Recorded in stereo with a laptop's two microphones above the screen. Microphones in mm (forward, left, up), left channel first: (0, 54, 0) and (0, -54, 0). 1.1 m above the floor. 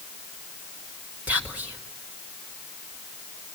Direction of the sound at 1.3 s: 15° right (ahead or behind).